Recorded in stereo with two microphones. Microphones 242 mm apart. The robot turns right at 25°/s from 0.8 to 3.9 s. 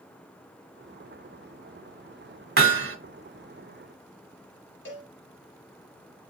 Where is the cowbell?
55° left (ahead or behind), 0.9 m.